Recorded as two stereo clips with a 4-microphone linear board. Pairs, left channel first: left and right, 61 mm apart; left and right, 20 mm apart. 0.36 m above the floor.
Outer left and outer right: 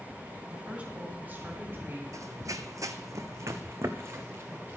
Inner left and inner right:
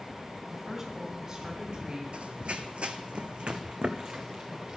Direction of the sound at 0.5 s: 15° right (ahead or behind).